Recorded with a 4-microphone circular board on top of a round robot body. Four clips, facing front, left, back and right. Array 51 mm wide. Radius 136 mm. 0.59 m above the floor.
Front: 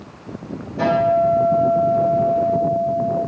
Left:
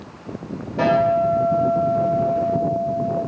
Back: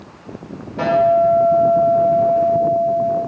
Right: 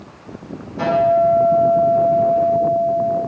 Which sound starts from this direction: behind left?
A guitar, at 0.8 s.